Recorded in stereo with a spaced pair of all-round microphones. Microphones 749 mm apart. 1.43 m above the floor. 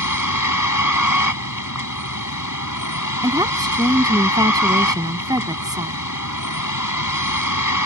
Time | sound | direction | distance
0.0 | a vehicle | 25° left (ahead or behind) | ?
3.2 | a woman speaking | 5° right (ahead or behind) | ?